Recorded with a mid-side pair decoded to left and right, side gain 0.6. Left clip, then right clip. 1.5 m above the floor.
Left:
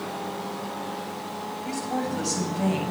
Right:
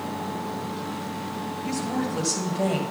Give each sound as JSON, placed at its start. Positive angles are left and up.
{"t": 1.6, "sound": "a woman speaking", "azimuth_deg": -60, "distance_m": 6.5}